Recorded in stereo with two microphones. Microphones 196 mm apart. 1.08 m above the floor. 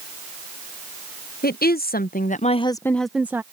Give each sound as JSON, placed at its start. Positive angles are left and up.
{"t": 1.4, "sound": "a woman speaking", "side_deg": 50}